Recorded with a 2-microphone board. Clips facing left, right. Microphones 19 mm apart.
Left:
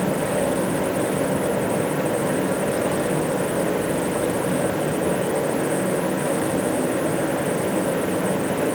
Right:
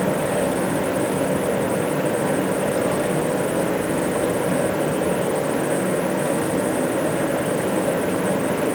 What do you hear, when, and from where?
Only background noise.